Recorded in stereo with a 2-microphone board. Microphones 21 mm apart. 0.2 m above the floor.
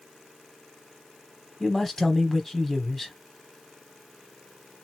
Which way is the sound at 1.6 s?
20° left (ahead or behind).